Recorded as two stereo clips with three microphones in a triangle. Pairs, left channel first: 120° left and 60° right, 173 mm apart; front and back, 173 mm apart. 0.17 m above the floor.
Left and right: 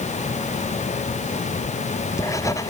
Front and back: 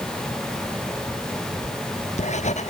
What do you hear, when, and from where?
1.6 s writing: 50° left